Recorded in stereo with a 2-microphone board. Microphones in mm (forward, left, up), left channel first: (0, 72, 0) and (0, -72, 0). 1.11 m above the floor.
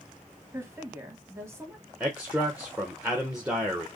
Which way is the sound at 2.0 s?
5° right (ahead or behind).